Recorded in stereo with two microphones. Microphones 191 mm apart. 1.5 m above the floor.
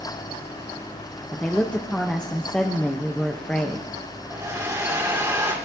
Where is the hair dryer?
15° right (ahead or behind), 3 m.